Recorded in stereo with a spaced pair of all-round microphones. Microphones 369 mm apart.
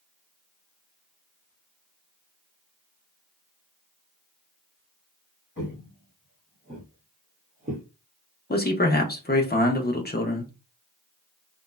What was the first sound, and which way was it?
Footsteps, 30° left (ahead or behind).